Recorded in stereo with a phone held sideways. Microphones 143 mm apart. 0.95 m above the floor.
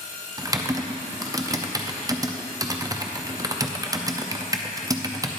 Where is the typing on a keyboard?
25° right (ahead or behind), 0.5 m.